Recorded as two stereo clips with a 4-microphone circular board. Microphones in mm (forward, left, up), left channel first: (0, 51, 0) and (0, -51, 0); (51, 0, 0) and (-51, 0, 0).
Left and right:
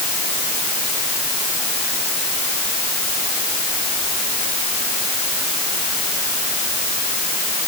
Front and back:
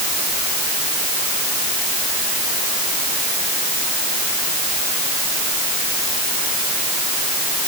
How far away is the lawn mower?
I don't hear a lawn mower.